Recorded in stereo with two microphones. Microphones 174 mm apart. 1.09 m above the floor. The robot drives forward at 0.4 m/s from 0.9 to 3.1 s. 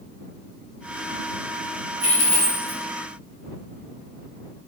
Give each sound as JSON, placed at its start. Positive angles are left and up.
{"t": 2.0, "sound": "a dropped coin", "side_deg": 45, "distance_m": 1.3}